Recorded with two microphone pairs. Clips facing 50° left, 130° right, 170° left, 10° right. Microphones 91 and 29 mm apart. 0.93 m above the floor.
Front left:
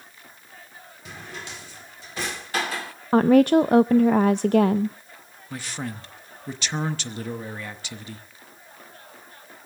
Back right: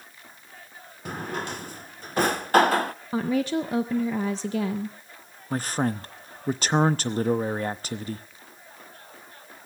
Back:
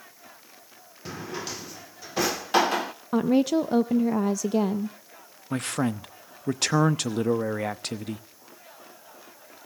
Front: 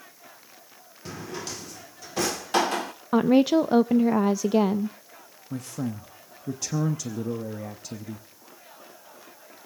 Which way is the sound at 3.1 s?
50° left.